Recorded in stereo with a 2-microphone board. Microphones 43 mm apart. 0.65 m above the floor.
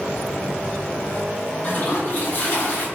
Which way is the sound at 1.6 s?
45° left (ahead or behind).